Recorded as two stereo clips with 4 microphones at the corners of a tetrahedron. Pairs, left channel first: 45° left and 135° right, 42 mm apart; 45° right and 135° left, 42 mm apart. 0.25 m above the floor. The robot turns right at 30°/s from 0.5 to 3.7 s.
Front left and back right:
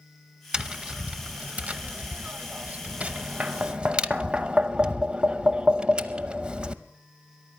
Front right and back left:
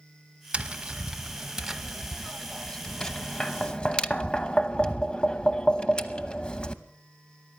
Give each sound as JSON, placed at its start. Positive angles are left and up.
{"t": 0.5, "sound": "tapping", "azimuth_deg": 175, "distance_m": 0.6}